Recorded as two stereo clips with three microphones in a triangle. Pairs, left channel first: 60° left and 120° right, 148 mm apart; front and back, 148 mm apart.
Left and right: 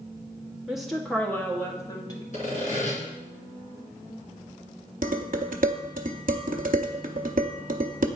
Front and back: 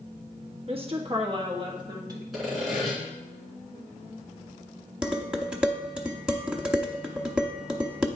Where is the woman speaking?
155° left, 1.1 m; by 2.2 s 120° left, 1.6 m.